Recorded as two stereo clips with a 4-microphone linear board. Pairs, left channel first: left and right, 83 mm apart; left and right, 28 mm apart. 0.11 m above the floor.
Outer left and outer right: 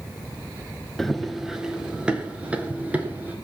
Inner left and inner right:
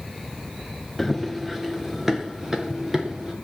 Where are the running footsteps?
5° left (ahead or behind), 1.3 m; by 3.3 s 20° right (ahead or behind), 3.5 m.